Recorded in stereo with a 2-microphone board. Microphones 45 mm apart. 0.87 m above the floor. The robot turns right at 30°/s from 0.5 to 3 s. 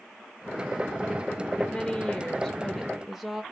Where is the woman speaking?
150° left, 0.6 m; by 3.4 s 175° right, 0.6 m.